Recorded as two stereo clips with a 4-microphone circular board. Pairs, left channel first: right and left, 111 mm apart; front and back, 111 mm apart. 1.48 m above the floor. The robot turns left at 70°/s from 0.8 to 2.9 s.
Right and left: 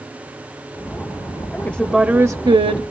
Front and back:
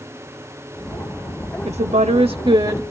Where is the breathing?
No breathing in this recording.